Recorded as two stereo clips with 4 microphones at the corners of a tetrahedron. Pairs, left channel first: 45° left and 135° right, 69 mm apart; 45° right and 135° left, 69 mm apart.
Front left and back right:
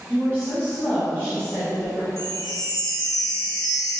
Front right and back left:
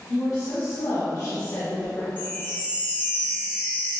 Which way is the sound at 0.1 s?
35° right.